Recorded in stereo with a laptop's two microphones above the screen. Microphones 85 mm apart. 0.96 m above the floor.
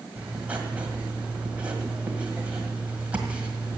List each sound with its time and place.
0.2 s writing: 20° right (ahead or behind), 1.6 m